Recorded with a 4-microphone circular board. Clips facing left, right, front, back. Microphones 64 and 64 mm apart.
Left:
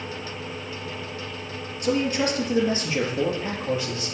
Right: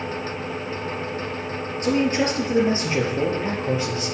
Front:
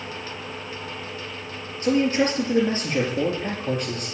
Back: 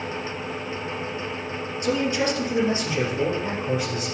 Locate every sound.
1.8 s a man speaking: 50° right, 3.5 m; by 4.1 s 30° right, 4 m